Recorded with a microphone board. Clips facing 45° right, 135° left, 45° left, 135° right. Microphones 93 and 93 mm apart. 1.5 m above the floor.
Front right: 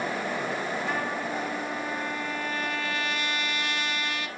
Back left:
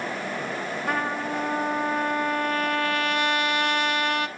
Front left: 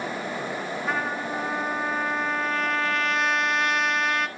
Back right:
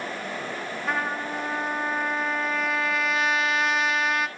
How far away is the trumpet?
About 1.1 m.